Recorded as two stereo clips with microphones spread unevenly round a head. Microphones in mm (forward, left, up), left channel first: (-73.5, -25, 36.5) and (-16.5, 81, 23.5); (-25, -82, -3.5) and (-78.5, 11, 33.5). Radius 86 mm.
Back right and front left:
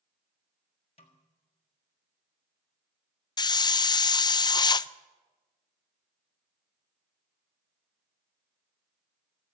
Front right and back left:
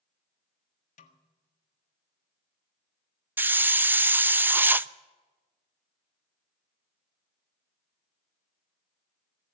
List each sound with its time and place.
1.0 s a snare drum: 60° right, 1.4 m
3.4 s a hiss: 170° right, 0.5 m